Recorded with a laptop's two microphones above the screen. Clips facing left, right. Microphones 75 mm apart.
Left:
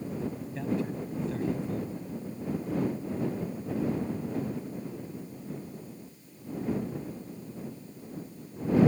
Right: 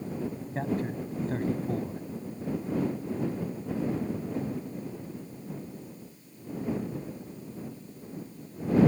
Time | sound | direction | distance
0.6 | a man speaking | 45° right (ahead or behind) | ?